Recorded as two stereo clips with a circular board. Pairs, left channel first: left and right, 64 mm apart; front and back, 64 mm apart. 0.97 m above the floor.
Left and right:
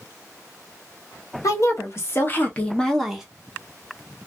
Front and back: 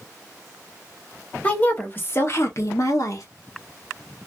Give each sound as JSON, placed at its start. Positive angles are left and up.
{"t": 1.4, "sound": "a woman speaking", "azimuth_deg": 65, "distance_m": 1.3}